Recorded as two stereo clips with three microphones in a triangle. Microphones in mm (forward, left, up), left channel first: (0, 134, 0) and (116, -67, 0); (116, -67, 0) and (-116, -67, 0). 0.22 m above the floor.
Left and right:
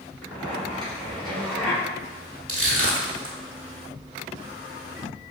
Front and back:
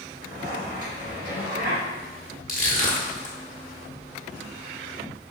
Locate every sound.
0.2 s a zipper: 155° right, 1.9 m
2.5 s crushing: 55° right, 1.2 m